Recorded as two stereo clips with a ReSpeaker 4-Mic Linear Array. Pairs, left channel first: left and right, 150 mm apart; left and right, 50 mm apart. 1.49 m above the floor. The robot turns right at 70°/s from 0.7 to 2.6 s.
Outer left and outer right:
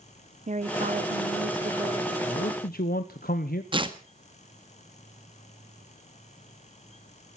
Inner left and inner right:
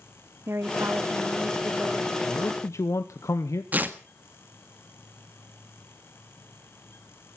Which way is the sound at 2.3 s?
65° left (ahead or behind).